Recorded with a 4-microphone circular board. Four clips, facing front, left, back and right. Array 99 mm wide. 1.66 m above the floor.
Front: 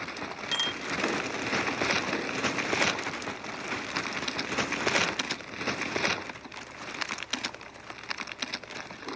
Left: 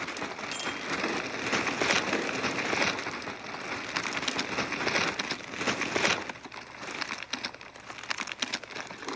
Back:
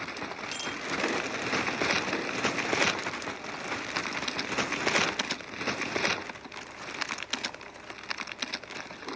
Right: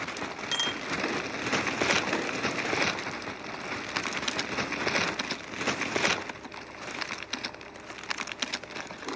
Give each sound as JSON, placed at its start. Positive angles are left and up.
{"t": 0.5, "sound": "a bicycle bell", "azimuth_deg": -50, "distance_m": 4.0}